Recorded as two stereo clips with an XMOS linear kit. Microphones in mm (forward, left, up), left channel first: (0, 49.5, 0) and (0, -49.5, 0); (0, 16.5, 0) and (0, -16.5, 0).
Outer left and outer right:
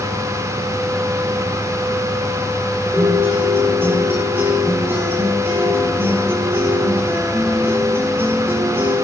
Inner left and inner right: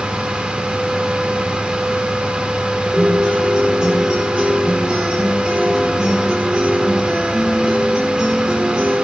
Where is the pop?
I don't hear a pop.